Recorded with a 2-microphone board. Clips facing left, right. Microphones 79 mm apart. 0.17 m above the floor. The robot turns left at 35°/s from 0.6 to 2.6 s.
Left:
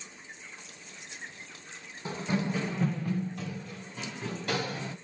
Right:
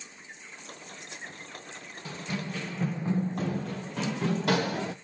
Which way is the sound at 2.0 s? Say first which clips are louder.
Left 5 dB; 20° left (ahead or behind).